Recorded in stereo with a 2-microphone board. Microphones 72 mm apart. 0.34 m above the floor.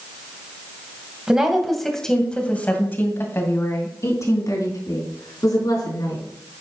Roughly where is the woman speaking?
Centre.